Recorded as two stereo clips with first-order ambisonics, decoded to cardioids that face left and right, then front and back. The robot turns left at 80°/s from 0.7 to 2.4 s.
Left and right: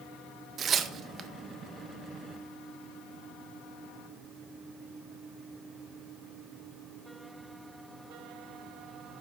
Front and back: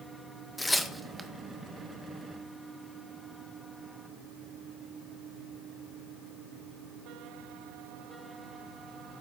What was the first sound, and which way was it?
Tearing paper, 80° right.